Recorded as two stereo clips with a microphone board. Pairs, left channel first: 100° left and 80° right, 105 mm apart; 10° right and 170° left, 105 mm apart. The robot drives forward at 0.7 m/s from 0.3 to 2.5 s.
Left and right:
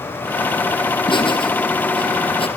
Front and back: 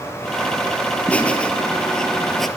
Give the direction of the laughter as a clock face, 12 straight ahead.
10 o'clock.